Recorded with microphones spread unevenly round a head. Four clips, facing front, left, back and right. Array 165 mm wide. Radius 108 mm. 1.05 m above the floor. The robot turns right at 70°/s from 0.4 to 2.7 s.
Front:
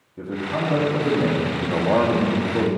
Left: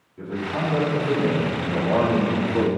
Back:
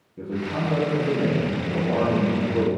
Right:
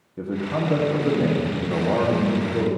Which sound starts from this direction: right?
A man speaking, at 0.2 s.